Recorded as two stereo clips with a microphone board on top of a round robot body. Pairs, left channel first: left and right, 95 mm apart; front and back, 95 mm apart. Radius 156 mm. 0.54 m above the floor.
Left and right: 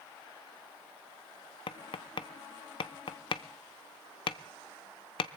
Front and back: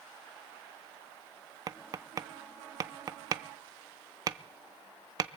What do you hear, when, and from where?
1.7 s tapping: 125° left, 0.5 m